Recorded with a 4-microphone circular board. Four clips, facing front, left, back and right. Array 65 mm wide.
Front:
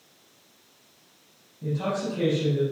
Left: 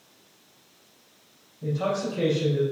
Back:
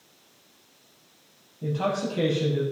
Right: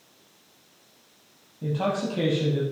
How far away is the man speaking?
About 5.5 m.